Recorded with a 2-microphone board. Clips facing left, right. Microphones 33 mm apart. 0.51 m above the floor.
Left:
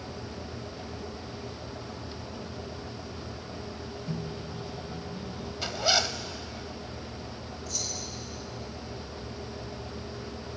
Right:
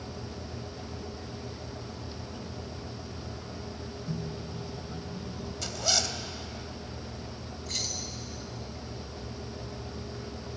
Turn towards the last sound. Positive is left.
turn(degrees=-55)  # may be behind; listen again after turning